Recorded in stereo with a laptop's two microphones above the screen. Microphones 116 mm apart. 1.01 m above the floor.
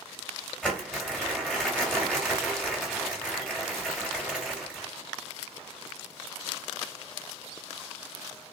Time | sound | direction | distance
0.6 | crumpling | 5° left (ahead or behind) | 1.8 m